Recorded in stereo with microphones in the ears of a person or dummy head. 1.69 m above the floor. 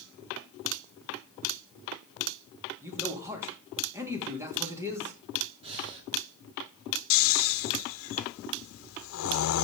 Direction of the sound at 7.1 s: 75° left (ahead or behind).